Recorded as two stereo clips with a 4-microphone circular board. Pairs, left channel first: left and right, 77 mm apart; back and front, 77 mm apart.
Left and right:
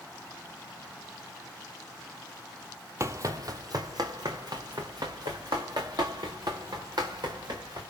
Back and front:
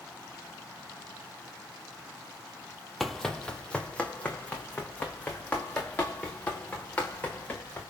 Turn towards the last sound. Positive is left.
turn(degrees=-115)